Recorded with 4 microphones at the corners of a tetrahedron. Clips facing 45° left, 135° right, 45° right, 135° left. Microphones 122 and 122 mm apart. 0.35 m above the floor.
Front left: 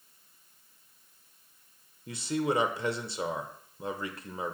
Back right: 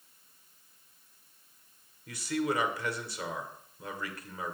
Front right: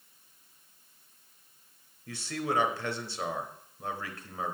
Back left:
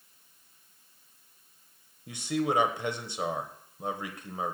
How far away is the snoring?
No snoring in this recording.